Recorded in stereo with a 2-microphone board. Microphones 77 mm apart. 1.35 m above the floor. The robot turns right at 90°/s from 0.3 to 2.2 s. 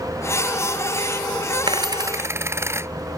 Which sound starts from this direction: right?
A dropped coin, at 1.7 s.